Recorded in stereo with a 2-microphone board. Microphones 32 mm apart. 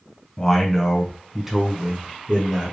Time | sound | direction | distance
0.4 | a man speaking | 15° left (ahead or behind) | 1.3 m